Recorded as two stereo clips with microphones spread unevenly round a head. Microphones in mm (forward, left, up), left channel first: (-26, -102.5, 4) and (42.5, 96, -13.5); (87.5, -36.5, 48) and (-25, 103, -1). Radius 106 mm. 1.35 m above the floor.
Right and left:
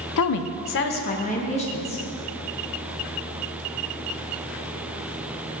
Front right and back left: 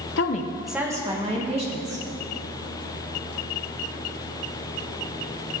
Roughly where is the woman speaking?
Right.